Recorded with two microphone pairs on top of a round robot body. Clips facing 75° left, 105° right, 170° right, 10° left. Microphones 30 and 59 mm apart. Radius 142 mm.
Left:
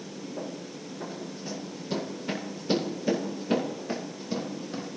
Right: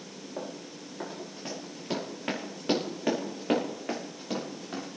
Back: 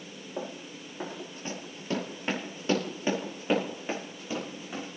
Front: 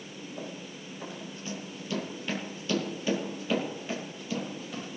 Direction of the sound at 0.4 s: 145° right.